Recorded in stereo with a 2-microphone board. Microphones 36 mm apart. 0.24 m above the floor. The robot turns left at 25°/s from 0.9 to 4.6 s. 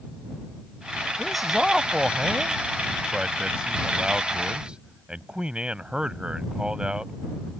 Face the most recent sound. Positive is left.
turn(degrees=-30)  # may be behind; listen again after turning